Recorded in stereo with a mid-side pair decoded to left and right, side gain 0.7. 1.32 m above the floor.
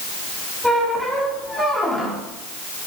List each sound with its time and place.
0.6 s a squeak: straight ahead, 2.5 m